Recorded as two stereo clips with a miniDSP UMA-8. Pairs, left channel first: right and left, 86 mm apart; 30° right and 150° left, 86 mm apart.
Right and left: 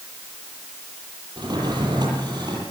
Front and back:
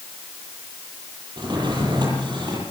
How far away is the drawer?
About 9.5 m.